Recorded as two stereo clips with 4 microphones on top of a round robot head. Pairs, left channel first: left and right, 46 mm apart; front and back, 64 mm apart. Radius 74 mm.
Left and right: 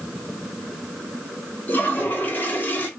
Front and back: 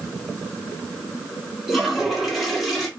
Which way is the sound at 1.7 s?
95° left.